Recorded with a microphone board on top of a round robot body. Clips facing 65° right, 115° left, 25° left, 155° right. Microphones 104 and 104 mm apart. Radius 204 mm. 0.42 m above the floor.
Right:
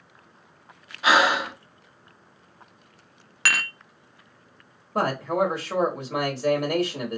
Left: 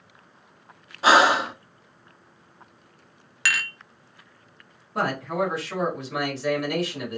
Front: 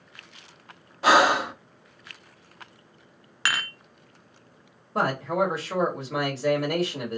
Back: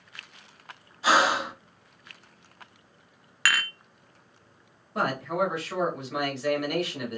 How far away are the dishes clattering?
About 0.9 m.